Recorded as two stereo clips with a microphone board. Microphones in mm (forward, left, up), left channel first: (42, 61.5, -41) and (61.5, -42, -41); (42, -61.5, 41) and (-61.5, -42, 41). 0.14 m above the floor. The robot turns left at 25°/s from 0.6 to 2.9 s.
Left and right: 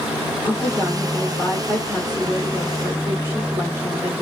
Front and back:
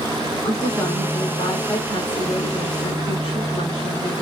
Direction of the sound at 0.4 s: 40° left.